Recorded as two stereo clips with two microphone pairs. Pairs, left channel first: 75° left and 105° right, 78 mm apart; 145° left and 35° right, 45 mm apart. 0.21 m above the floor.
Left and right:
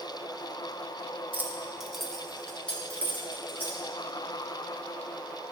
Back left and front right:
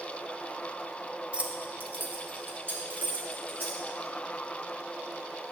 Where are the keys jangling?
75° right, 1.0 m; by 3.8 s 10° left, 3.5 m.